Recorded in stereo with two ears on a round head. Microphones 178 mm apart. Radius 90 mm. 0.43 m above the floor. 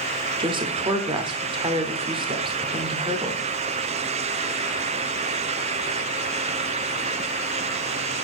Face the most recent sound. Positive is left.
turn(degrees=-25)  # may be behind; listen again after turning